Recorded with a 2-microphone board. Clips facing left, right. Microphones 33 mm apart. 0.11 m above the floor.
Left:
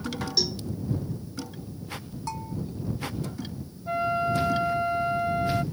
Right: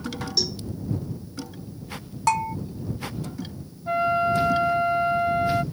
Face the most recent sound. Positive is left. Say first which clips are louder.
# right 4 dB
turn(degrees=-15)  # may be behind; listen again after turning